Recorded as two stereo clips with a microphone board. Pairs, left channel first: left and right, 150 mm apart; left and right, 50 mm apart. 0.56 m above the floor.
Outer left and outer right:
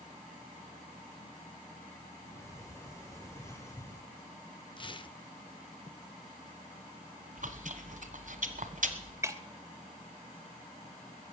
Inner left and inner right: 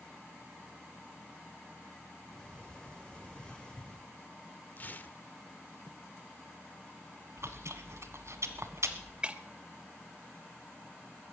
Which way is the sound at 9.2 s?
20° right (ahead or behind).